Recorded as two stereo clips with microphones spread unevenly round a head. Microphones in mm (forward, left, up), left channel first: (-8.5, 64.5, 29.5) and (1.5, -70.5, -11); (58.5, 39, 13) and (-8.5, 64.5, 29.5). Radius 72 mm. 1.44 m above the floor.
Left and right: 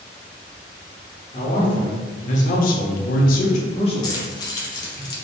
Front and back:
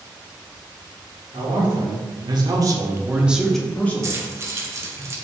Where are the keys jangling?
135° left, 0.5 m.